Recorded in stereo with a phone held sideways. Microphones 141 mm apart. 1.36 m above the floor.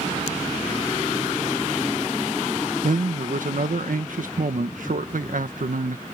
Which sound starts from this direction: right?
A man speaking, at 2.8 s.